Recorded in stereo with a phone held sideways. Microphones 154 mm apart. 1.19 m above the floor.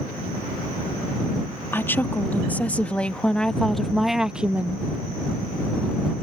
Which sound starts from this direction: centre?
A woman speaking, at 1.7 s.